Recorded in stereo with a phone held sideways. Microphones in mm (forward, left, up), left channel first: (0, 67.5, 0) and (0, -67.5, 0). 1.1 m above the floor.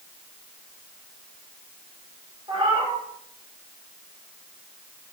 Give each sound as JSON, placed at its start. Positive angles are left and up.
{"t": 2.5, "sound": "a cat meowing", "side_deg": -35, "distance_m": 1.5}